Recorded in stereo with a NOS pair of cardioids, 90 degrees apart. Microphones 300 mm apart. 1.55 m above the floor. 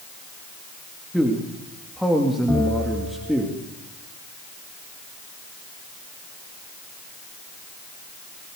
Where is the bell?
10° left, 9.5 m.